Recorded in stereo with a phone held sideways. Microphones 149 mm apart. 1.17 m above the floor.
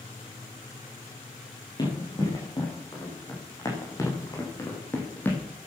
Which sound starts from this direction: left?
Running footsteps, at 1.8 s.